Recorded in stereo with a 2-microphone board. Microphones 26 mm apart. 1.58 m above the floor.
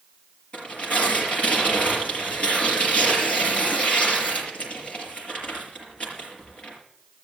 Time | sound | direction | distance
0.5 | tearing paper | 45° left (ahead or behind) | 5.5 m